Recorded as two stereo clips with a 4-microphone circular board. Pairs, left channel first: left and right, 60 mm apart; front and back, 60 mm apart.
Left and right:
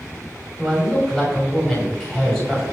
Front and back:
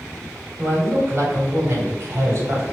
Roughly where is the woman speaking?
Behind.